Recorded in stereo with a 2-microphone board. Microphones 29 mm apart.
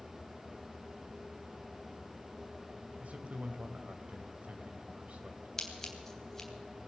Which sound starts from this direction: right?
A man speaking, at 3.0 s.